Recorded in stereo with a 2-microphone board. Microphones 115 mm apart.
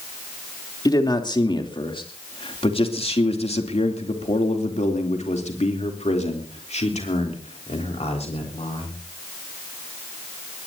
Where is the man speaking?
35° left (ahead or behind), 3 m; by 9.0 s 60° left (ahead or behind), 4.5 m.